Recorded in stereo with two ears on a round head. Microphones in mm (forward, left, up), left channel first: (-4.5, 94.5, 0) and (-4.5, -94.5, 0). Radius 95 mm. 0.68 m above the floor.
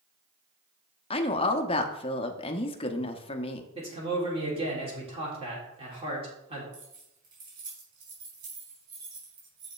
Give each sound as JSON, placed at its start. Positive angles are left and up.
{"t": 1.1, "sound": "a woman speaking", "side_deg": 25, "distance_m": 0.7}
{"t": 3.8, "sound": "a man speaking", "side_deg": -25, "distance_m": 2.5}
{"t": 6.7, "sound": "keys jangling", "side_deg": -45, "distance_m": 4.0}